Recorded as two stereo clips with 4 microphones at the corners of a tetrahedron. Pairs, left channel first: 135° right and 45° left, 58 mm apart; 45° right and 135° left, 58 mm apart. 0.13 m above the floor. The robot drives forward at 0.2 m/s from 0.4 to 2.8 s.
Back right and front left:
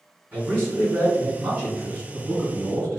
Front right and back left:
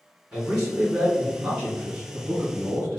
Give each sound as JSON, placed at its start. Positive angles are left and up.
{"t": 0.3, "sound": "a man speaking", "azimuth_deg": 75, "distance_m": 1.9}